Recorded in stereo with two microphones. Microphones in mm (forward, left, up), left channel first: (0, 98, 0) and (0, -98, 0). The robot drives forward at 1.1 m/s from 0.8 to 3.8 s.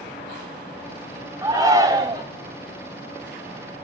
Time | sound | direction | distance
1.4 | a shout | 15° right (ahead or behind) | 3.5 m